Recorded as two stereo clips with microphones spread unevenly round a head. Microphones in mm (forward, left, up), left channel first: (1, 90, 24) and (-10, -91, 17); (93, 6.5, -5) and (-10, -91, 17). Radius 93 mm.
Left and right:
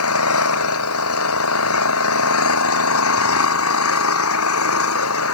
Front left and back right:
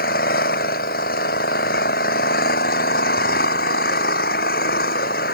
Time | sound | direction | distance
0.0 | an engine running | 90° left | ?